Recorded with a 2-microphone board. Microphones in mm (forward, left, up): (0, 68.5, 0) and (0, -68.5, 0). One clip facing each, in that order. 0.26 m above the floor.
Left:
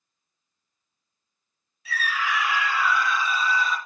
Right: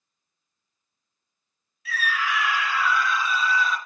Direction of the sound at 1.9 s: 30° left (ahead or behind).